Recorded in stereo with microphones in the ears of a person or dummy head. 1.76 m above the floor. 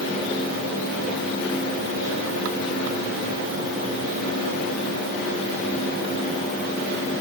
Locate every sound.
Only background noise.